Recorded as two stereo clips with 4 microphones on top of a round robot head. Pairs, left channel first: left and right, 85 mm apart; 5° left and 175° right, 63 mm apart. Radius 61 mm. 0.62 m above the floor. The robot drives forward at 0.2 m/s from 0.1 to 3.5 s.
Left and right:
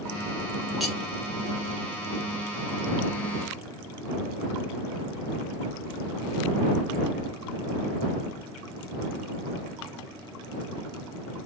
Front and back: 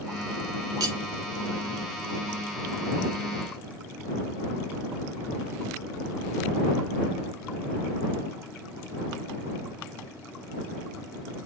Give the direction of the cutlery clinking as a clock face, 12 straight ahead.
6 o'clock.